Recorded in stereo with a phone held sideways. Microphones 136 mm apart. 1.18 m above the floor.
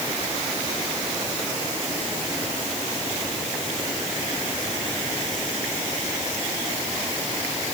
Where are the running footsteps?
I don't hear running footsteps.